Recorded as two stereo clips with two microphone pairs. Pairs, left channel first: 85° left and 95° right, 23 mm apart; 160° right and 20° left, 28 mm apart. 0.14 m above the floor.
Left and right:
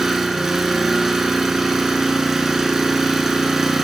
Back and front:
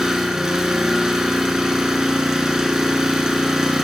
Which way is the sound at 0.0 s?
30° right.